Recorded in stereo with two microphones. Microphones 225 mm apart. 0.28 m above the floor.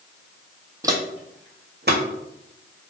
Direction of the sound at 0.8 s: 15° right (ahead or behind).